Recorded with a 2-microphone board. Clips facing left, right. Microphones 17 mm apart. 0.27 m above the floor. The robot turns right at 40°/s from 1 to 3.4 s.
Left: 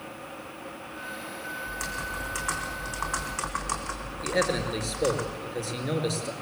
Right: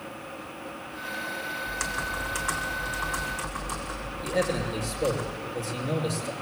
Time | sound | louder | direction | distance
1.7 | typing on a keyboard | right 3 dB | 30° right | 3.5 m
4.2 | a man speaking | left 1 dB | 20° left (ahead or behind) | 4.5 m